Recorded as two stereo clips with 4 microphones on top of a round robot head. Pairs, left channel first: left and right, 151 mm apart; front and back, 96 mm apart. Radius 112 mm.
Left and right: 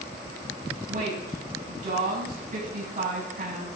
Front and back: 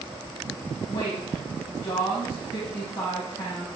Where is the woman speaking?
55° right, 5.5 m.